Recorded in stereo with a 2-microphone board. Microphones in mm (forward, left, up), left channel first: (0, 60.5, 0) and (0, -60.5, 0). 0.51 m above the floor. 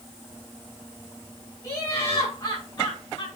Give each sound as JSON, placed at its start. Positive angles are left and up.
{"t": 1.6, "sound": "laughter", "side_deg": 30, "distance_m": 5.5}